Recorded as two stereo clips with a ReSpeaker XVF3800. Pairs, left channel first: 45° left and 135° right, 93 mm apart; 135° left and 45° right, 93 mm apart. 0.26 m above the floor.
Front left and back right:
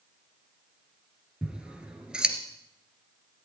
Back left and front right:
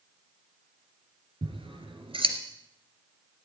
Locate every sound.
1.4 s scissors: 55° right, 2 m